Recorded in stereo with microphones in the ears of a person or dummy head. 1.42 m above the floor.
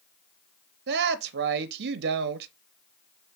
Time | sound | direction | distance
0.9 | a woman speaking | 55° right (ahead or behind) | 0.7 m